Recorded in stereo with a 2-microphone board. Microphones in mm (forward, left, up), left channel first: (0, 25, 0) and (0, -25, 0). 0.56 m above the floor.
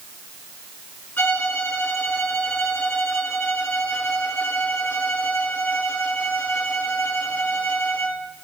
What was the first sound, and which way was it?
A violin, 45° left (ahead or behind).